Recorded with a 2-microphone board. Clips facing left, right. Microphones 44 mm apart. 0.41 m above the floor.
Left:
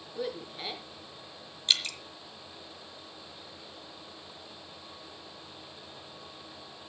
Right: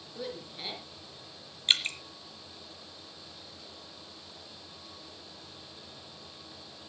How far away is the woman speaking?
About 7 m.